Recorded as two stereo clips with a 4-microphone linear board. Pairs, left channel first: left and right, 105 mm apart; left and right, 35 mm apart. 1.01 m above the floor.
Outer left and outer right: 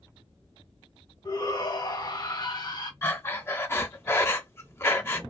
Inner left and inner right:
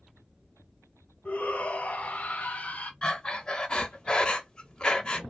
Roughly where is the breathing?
Left.